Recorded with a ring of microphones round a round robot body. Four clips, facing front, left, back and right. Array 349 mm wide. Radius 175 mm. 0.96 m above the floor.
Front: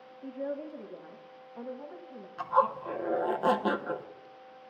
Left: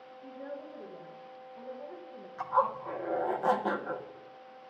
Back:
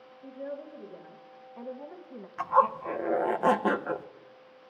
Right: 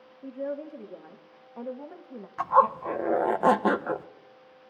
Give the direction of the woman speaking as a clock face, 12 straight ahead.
2 o'clock.